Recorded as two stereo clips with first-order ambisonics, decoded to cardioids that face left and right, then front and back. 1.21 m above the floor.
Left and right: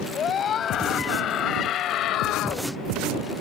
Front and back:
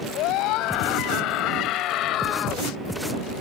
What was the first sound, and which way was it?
A scream, 30° left.